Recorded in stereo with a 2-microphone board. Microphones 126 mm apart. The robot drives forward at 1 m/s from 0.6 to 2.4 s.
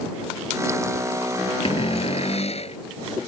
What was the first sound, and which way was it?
A cupboard door, 50° left (ahead or behind).